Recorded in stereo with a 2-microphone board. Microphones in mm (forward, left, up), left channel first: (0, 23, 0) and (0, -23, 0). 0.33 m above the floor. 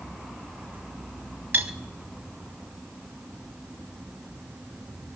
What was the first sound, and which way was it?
Cutlery clinking, 55° right (ahead or behind).